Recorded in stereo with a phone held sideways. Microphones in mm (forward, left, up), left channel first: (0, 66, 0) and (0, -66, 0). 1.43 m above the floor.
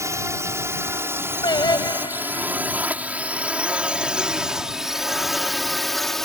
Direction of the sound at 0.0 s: 20° right (ahead or behind).